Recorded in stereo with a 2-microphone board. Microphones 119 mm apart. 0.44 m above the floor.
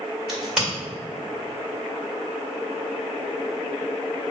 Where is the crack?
5° right (ahead or behind), 1.9 m.